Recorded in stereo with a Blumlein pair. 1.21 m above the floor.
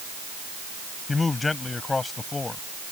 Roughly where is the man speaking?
Ahead.